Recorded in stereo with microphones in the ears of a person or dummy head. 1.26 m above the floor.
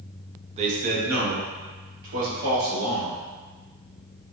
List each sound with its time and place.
0.6 s a man speaking: 35° right (ahead or behind), 0.7 m; by 3.2 s 80° right, 2.5 m